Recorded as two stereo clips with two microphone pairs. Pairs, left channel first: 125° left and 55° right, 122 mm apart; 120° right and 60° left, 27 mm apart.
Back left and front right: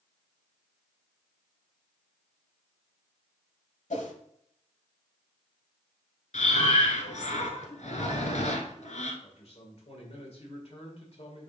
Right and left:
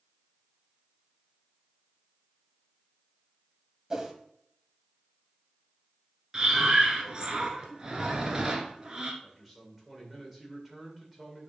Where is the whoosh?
130° left, 1.0 m.